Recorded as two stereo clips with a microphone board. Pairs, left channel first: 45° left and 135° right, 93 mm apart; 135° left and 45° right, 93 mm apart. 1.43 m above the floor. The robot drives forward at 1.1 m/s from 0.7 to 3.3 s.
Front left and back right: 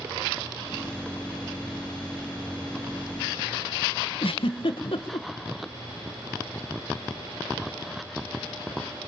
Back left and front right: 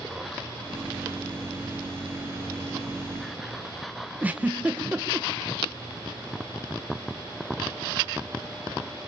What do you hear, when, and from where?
4.2 s a giggle: 30° left, 1.2 m